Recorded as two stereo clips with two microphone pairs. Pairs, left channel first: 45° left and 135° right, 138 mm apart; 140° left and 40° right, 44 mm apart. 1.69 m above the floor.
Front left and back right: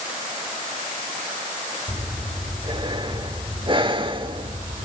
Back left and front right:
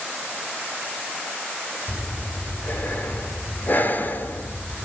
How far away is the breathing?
About 2 m.